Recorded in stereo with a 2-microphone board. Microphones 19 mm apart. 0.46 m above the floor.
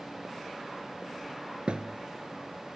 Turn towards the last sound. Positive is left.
turn(degrees=-75)  # may be behind; listen again after turning